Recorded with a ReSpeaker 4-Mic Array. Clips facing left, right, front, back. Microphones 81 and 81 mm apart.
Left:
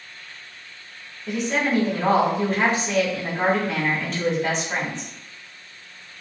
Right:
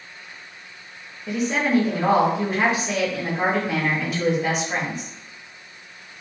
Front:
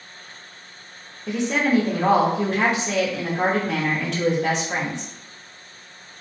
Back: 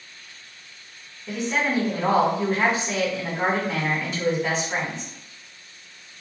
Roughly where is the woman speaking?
Ahead.